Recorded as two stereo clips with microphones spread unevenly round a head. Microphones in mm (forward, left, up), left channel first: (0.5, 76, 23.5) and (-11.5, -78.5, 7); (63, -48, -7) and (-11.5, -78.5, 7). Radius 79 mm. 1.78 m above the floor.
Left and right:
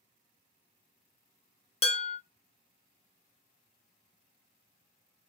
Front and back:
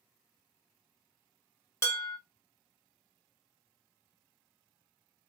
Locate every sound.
1.8 s dishes clattering: 85° left, 1.1 m